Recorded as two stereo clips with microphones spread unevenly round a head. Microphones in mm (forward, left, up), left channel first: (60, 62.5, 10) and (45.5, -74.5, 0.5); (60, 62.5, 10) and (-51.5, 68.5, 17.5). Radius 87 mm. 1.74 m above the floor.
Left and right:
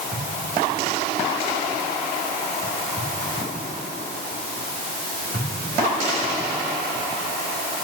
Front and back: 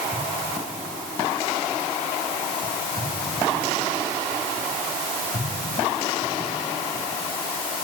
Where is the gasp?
No gasp in this recording.